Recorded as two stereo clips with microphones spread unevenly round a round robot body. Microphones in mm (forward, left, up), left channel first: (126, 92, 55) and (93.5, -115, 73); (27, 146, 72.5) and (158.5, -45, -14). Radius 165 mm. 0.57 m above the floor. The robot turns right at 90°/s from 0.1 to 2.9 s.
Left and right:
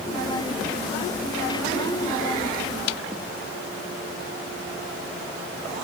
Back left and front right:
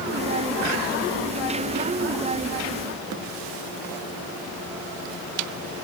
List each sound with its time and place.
Only background noise.